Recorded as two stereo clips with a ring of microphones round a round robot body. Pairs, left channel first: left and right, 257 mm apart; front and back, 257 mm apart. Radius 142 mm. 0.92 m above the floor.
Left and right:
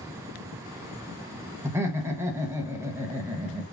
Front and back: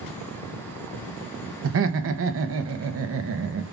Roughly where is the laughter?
Behind.